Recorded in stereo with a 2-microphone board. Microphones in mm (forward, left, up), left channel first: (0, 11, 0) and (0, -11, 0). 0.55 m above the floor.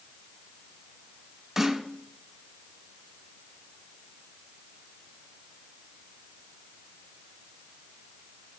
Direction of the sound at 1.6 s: 30° right (ahead or behind).